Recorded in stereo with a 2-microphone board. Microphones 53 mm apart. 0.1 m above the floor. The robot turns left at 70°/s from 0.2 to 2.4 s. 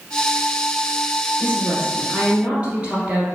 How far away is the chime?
No chime in this recording.